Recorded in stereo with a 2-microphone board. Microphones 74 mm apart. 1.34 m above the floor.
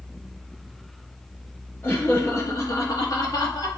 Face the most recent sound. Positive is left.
turn(degrees=70)  # may be behind; listen again after turning